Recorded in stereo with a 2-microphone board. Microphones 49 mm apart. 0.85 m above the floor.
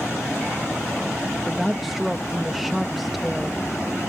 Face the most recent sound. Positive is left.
turn(degrees=0)  # may be behind; listen again after turning